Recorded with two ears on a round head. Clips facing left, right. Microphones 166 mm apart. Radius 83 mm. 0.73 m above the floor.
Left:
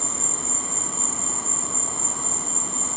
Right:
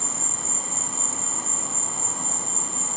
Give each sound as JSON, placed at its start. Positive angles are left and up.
{"t": 0.0, "sound": "an insect", "side_deg": 65, "distance_m": 1.1}